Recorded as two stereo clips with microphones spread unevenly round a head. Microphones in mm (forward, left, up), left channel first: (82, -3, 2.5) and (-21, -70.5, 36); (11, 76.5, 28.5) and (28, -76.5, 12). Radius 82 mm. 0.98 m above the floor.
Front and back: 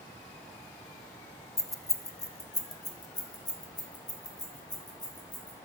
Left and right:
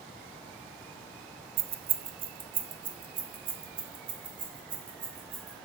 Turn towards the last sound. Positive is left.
turn(degrees=-25)